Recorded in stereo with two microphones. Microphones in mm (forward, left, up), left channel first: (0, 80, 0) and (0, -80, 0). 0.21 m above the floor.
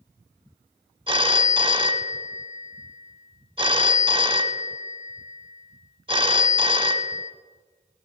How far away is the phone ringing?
About 0.7 m.